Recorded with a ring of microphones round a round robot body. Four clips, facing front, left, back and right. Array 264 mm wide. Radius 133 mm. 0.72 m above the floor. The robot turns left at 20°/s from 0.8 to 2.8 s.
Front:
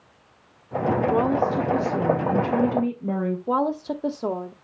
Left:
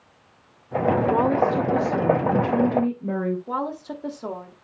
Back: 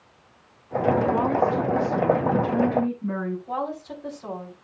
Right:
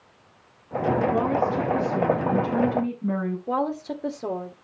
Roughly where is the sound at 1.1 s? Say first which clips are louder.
Left 3 dB, even; left.